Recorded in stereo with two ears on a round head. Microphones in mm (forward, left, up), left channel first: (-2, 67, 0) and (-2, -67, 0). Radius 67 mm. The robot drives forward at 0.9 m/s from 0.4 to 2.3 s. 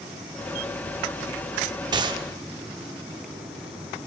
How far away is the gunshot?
About 0.7 m.